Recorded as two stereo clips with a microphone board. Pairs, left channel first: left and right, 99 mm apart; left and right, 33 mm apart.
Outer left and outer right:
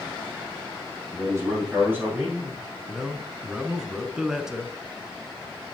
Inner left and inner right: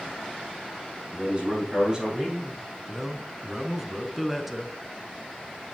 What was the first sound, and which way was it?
A man speaking, 30° right (ahead or behind).